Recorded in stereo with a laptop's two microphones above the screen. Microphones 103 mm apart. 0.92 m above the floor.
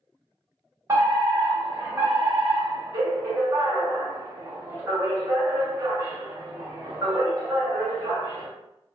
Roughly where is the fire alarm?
Right.